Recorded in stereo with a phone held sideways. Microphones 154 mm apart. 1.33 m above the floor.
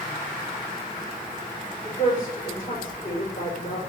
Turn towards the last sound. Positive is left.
turn(degrees=70)  # may be behind; listen again after turning